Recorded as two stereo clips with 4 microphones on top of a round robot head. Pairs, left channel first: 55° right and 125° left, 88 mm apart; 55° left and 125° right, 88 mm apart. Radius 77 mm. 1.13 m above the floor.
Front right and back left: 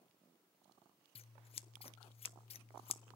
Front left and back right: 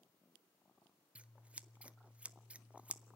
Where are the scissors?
45° right, 0.6 m.